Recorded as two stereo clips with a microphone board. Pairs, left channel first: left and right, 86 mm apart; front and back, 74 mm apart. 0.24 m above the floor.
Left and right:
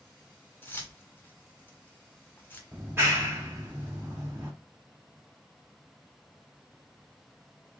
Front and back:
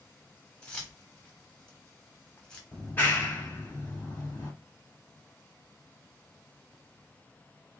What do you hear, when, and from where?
0.6 s keys jangling: 60° left, 0.8 m
2.7 s a clap: 45° right, 1.1 m